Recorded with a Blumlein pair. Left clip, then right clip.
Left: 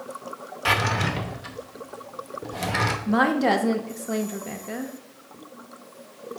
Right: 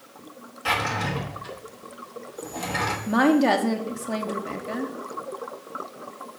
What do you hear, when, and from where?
0.7 s a drawer: 20° left, 0.8 m
3.1 s a woman speaking: straight ahead, 0.7 m